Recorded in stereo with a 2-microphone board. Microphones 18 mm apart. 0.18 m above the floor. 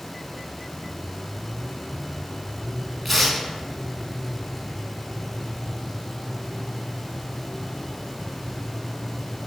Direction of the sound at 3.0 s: 5° left (ahead or behind).